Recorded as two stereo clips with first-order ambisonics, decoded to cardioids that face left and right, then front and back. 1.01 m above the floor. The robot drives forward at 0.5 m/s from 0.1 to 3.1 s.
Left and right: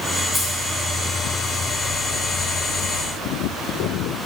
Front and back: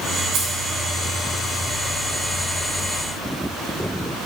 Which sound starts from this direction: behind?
Keys jangling, at 0.3 s.